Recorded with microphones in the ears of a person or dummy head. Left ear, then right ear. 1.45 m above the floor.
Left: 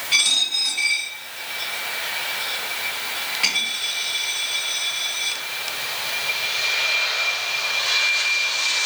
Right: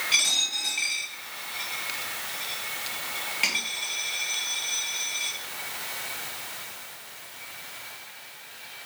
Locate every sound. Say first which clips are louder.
0.1 s a dropped coin: left 6 dB; 25° right (ahead or behind), 4 m